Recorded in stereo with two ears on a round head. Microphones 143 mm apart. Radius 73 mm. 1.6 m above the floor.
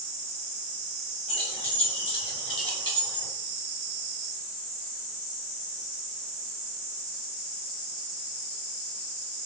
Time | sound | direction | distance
1.3 | keys jangling | 35° left (ahead or behind) | 7 m